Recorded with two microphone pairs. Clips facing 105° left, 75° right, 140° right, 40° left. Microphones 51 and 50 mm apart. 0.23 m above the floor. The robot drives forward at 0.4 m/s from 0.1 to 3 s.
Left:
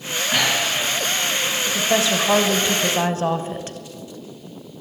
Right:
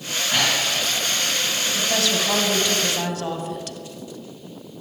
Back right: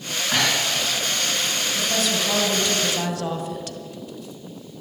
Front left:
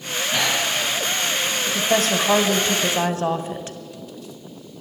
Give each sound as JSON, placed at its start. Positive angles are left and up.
{"t": 0.3, "sound": "breathing", "azimuth_deg": -175, "distance_m": 3.5}
{"t": 1.7, "sound": "a woman speaking", "azimuth_deg": 40, "distance_m": 1.3}